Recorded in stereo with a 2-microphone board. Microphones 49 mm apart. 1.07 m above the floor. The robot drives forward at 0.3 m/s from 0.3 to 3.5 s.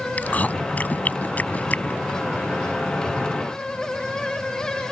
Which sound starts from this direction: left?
Chewing, at 0.2 s.